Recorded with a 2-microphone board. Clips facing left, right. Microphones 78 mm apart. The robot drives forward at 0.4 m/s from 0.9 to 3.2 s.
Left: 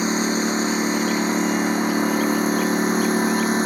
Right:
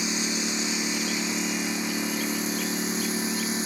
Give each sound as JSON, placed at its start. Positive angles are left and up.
{"t": 0.0, "sound": "a lawn mower", "side_deg": 45}